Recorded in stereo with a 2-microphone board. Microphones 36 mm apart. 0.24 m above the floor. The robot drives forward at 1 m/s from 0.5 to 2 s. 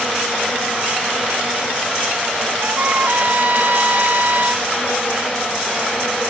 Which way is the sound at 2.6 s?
60° right (ahead or behind).